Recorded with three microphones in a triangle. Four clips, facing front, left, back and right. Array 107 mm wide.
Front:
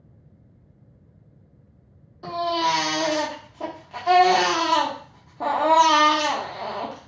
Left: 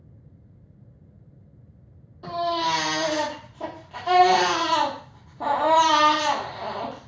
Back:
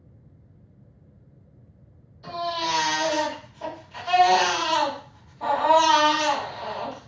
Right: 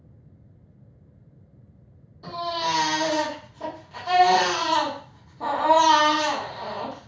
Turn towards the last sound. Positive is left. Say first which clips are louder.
# left 3 dB, front 5 dB
turn(degrees=20)